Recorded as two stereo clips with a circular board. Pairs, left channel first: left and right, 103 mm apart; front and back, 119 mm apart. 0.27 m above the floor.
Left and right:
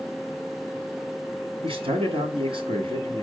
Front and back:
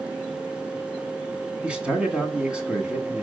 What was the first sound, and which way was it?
A man speaking, 100° right.